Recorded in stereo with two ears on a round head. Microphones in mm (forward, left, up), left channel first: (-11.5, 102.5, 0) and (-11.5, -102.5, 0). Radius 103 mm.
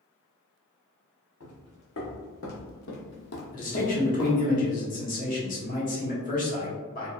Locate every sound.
1.4 s footsteps: 60° left (ahead or behind), 1.8 m; by 4.5 s 10° left (ahead or behind), 0.8 m
3.5 s a man speaking: 35° left (ahead or behind), 1.1 m